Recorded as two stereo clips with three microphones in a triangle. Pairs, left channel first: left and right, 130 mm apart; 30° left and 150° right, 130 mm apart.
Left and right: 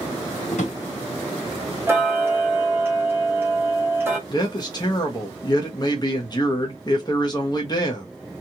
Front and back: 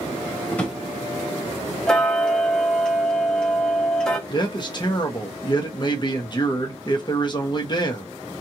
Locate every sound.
0.5 s a drawer: 105° left, 1.2 m
1.9 s ticking: 50° right, 0.8 m
4.3 s a man speaking: 55° left, 0.9 m